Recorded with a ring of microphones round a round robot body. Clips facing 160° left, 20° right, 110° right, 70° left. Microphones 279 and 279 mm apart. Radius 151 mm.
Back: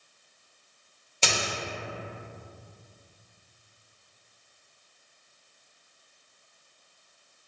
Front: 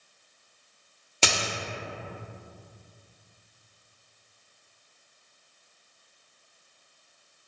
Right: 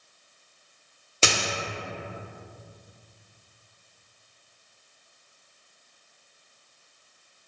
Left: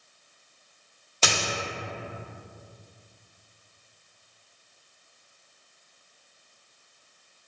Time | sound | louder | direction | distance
1.2 | a dropped coin | front 1 dB, right 2 dB | 50° right | 0.6 m